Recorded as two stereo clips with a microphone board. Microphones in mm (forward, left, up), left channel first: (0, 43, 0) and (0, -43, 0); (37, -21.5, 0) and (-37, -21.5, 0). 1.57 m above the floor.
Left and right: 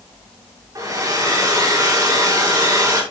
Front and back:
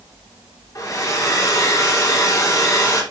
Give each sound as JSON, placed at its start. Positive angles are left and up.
{"t": 0.8, "sound": "a hair dryer", "azimuth_deg": -40, "distance_m": 5.5}